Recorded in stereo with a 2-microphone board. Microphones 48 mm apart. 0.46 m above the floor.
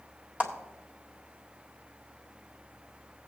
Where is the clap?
30° right (ahead or behind), 1.7 m.